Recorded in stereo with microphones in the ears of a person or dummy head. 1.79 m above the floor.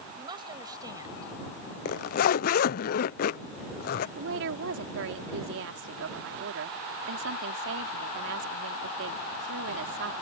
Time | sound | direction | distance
0.2 | a woman speaking | 25° right (ahead or behind) | ?
1.9 | a zipper | 55° left (ahead or behind) | ?
4.2 | a woman speaking | 75° right (ahead or behind) | ?